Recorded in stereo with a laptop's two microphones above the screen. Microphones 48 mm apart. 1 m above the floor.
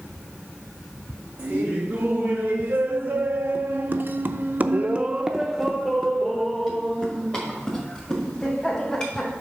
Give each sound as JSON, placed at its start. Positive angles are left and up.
{"t": 1.4, "sound": "laughter", "side_deg": -30, "distance_m": 1.8}